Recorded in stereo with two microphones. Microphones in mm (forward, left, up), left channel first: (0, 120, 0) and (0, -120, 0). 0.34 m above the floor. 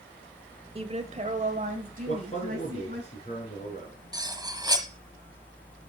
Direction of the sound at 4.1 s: 15° right (ahead or behind).